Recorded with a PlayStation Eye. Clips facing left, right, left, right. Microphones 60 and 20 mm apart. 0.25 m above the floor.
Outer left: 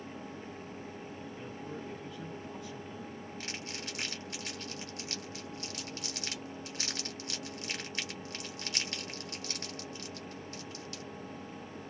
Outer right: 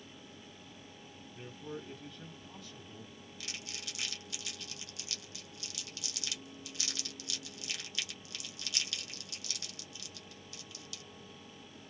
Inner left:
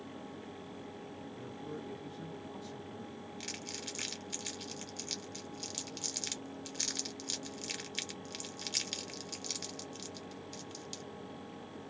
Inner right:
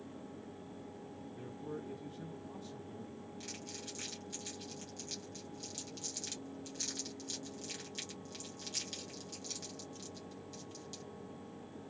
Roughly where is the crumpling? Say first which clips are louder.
Outer left 2 dB, inner left 5 dB; left.